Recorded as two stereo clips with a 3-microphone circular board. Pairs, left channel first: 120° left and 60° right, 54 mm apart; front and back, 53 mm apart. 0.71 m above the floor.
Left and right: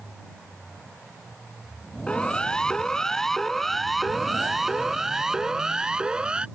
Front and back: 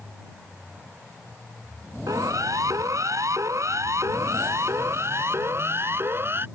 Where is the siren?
165° right; by 6.5 s 130° right.